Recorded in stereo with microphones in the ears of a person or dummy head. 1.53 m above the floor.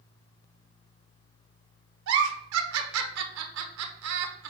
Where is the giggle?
70° right (ahead or behind), 1.0 m.